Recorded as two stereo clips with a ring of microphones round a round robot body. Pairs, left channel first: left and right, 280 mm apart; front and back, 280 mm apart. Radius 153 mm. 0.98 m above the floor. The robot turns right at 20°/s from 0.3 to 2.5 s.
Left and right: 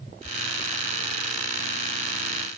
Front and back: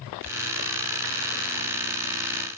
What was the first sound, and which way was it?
Only background noise.